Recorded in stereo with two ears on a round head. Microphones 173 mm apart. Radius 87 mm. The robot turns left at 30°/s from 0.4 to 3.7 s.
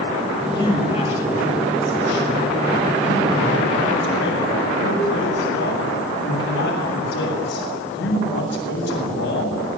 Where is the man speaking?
160° left, 8 m; by 9.6 s 65° left, 8 m.